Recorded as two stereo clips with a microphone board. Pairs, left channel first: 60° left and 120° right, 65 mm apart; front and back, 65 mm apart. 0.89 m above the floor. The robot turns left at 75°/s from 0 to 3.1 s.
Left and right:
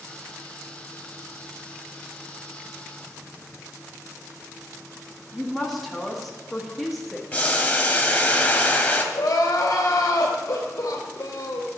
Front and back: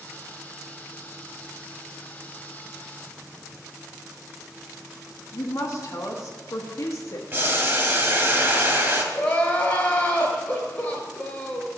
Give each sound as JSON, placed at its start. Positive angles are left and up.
{"t": 5.3, "sound": "a woman speaking", "azimuth_deg": -35, "distance_m": 1.4}
{"t": 7.3, "sound": "boiling", "azimuth_deg": 125, "distance_m": 1.5}
{"t": 9.1, "sound": "crying", "azimuth_deg": 70, "distance_m": 2.5}